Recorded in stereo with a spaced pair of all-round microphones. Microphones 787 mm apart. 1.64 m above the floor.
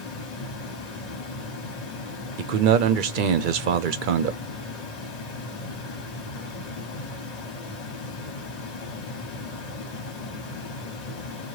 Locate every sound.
0.0 s running water: 50° left (ahead or behind), 1.0 m
2.4 s a man speaking: 75° right (ahead or behind), 0.7 m